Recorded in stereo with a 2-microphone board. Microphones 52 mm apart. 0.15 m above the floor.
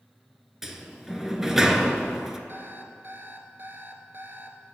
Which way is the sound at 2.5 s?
45° right (ahead or behind).